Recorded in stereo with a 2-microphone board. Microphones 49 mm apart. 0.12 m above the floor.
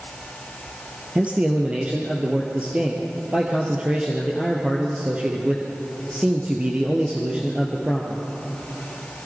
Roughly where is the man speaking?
Right.